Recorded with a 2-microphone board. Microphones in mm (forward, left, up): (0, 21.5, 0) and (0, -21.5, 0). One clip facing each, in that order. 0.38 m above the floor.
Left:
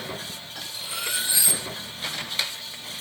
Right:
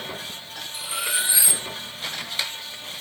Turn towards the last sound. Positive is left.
turn(degrees=-15)  # may be behind; listen again after turning